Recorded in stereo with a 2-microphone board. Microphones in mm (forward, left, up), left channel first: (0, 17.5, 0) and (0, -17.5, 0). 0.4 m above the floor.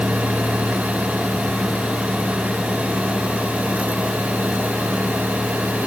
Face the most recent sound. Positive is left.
No sound to turn to.